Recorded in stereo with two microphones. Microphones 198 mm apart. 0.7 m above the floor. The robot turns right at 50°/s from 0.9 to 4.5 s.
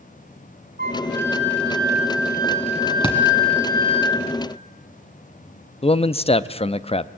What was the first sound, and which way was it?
A flute, 125° right.